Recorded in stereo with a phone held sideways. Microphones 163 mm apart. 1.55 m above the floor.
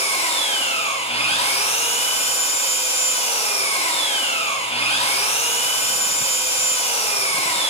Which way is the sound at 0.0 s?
40° left (ahead or behind).